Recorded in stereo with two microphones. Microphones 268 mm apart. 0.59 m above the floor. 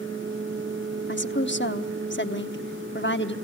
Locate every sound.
1.1 s a woman speaking: 45° left (ahead or behind), 0.9 m